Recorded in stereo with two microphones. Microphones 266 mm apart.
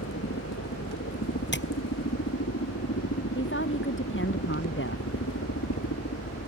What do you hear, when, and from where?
0.0 s a helicopter: 60° left (ahead or behind); by 6.5 s 65° left (ahead or behind)
1.5 s tapping: 45° left (ahead or behind)
3.4 s a woman speaking: 45° left (ahead or behind)